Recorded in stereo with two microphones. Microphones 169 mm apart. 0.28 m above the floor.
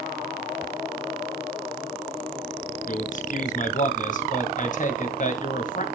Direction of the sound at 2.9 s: 50° left (ahead or behind).